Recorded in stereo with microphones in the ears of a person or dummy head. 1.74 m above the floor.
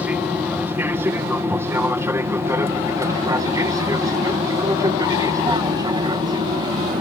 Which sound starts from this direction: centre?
An aircraft, at 0.0 s.